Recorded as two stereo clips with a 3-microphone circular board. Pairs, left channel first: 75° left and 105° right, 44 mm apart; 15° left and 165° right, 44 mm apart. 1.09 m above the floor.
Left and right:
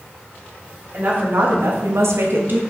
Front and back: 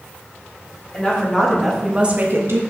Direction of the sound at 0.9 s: 55° right.